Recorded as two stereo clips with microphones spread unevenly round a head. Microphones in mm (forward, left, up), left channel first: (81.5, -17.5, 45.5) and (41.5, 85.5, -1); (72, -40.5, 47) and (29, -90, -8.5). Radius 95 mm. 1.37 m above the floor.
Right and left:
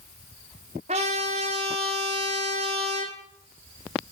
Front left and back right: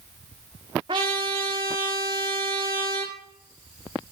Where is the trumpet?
170° left, 1.9 m.